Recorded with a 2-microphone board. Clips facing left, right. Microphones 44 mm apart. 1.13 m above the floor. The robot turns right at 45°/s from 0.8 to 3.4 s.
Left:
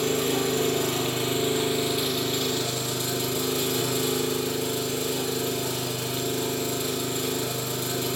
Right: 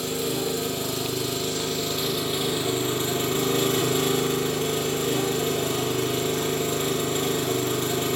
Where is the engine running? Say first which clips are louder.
Left 3 dB; 120° left, 2.5 m; by 8.2 s 125° right, 2.5 m.